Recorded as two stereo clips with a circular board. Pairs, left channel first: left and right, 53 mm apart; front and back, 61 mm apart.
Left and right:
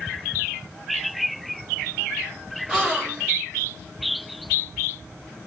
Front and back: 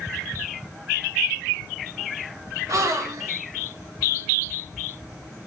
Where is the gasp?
170° right, 1.8 m.